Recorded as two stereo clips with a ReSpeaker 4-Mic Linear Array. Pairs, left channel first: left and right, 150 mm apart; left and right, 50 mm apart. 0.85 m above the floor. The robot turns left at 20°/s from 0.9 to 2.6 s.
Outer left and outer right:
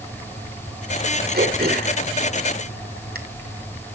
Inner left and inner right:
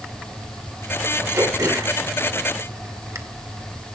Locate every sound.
1.3 s throat clearing: 80° right, 1.9 m; by 3.2 s 75° right (ahead or behind), 1.9 m